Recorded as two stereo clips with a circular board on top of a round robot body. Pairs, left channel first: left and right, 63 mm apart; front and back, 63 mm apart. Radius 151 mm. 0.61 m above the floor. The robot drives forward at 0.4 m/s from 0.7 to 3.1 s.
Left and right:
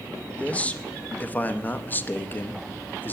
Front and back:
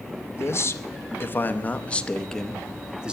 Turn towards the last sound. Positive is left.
turn(degrees=115)